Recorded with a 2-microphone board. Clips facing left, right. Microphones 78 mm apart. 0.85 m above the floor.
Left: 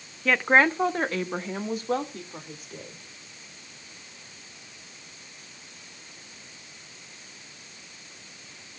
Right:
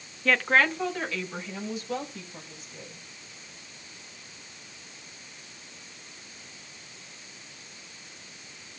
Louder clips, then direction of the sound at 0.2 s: Left 3 dB; centre (ahead or behind).